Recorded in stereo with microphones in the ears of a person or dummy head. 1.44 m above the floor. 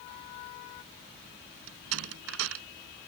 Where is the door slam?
85° right.